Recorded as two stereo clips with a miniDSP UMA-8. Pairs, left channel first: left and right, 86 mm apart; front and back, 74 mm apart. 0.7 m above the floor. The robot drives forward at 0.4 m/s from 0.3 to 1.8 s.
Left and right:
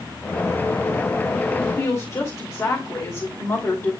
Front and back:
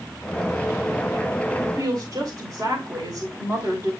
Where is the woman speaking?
130° left, 3 m; by 3.9 s 135° left, 3 m.